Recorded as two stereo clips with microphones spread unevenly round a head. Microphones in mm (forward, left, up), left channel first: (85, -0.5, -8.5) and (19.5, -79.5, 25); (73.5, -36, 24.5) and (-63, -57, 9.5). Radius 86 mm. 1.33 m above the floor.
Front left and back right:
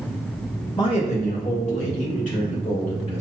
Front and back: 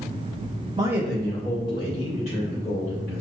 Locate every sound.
0.8 s a man speaking: 120° left, 0.5 m; by 3.2 s 60° left, 2.0 m